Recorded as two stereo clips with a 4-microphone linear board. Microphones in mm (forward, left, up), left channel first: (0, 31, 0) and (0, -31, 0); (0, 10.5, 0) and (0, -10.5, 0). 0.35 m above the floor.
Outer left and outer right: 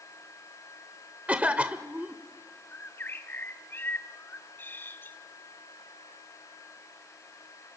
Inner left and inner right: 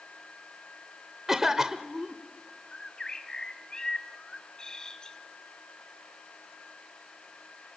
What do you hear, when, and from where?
1.3 s a cough: 20° right (ahead or behind), 0.9 m
2.7 s a bird: 35° left (ahead or behind), 1.4 m